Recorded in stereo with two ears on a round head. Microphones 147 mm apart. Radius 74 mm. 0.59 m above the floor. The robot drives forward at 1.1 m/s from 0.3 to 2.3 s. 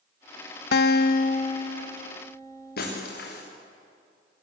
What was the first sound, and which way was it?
A guitar, 65° left (ahead or behind).